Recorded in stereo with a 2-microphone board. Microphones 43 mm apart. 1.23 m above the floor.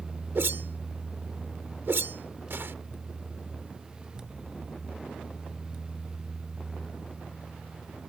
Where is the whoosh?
60° right (ahead or behind).